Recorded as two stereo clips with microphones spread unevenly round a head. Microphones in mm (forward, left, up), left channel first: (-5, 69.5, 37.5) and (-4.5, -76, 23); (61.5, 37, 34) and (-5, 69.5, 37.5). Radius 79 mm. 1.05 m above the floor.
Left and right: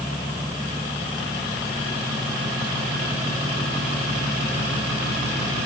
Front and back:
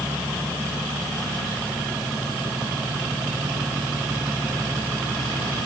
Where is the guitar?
I don't hear a guitar.